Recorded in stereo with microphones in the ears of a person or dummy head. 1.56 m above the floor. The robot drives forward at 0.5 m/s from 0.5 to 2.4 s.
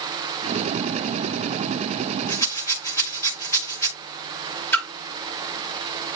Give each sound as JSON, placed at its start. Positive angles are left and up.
{"t": 2.3, "sound": "a rattle", "side_deg": 15, "distance_m": 2.0}
{"t": 4.7, "sound": "a splash", "side_deg": 10, "distance_m": 2.5}